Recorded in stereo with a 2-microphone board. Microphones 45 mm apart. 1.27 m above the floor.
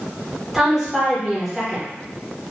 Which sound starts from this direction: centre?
A woman speaking, at 0.5 s.